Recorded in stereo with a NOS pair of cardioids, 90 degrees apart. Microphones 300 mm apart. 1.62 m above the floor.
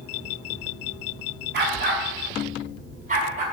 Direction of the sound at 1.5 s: 35° right.